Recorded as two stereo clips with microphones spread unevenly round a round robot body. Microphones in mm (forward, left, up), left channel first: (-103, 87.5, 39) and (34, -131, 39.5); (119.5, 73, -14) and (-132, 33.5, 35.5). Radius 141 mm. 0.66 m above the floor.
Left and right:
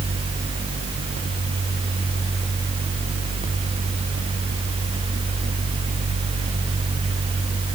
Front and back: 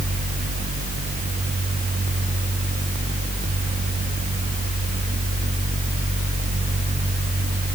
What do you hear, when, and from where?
Only background noise.